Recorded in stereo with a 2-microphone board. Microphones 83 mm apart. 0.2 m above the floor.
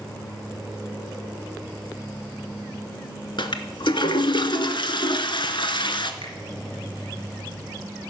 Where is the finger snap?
65° left (ahead or behind), 2 m.